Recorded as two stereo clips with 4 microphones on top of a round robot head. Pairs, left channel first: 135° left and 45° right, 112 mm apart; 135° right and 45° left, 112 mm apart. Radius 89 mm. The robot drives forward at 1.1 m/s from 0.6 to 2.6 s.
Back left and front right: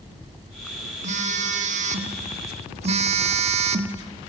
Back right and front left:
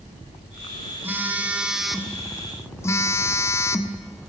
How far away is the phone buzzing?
About 2.5 m.